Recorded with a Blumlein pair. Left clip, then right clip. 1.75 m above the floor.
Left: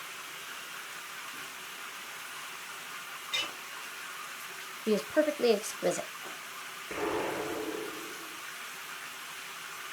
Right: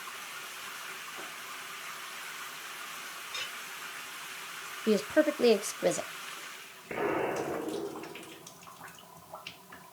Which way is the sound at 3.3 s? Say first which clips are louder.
Left 6 dB; 50° left.